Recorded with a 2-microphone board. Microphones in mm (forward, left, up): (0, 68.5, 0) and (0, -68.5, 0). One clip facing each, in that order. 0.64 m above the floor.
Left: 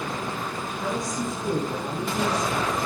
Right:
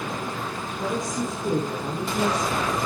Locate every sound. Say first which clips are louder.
0.8 s a woman speaking: right 2 dB; 25° right (ahead or behind), 5.5 m; by 2.8 s 5° right (ahead or behind), 6.5 m